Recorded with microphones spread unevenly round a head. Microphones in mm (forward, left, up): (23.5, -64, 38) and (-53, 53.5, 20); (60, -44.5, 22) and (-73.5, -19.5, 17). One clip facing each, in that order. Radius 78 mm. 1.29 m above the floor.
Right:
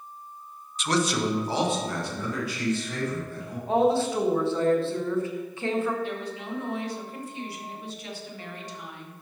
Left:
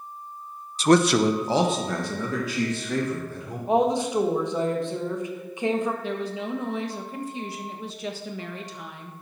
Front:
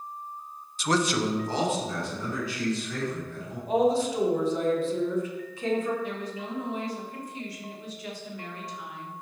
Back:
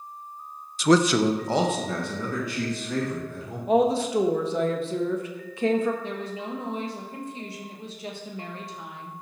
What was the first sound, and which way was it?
A man speaking, straight behind.